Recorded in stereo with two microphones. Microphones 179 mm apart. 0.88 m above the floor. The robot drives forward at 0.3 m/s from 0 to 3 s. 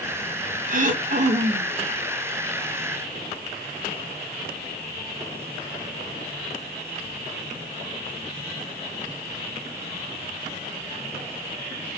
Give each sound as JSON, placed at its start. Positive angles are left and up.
{"t": 0.7, "sound": "throat clearing", "side_deg": -50, "distance_m": 0.6}